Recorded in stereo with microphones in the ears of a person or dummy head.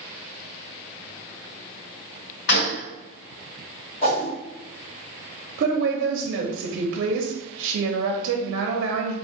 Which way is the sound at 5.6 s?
70° right (ahead or behind).